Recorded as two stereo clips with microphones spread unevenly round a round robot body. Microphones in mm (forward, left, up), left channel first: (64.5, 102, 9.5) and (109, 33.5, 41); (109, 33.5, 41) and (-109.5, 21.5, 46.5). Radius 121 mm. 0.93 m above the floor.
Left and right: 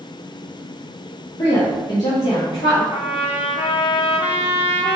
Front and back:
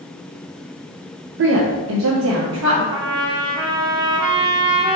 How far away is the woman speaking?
About 0.6 m.